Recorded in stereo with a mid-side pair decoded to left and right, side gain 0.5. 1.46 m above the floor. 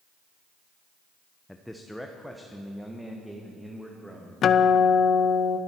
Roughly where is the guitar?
Ahead left.